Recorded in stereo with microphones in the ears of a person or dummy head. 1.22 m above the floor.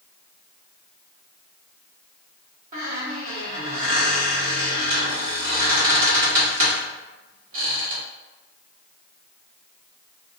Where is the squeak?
40° right (ahead or behind), 1.2 m.